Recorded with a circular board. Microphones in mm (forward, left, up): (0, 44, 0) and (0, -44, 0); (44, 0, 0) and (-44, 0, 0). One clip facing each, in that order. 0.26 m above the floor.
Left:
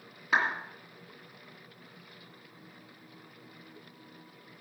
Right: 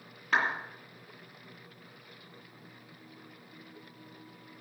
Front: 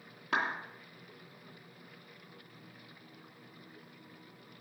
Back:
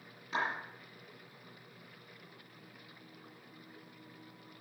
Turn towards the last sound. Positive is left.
turn(degrees=5)